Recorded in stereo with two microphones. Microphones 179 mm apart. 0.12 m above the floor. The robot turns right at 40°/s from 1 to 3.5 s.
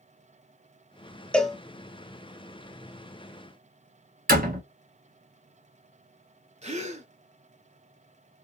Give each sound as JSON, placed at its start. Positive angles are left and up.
{"t": 1.3, "sound": "a cowbell", "side_deg": 5, "distance_m": 0.7}
{"t": 4.3, "sound": "a door slam", "side_deg": -55, "distance_m": 1.4}
{"t": 6.6, "sound": "a gasp", "side_deg": -40, "distance_m": 0.7}